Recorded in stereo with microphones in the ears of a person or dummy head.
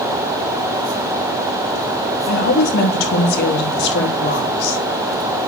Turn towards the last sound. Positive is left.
turn(degrees=60)  # may be behind; listen again after turning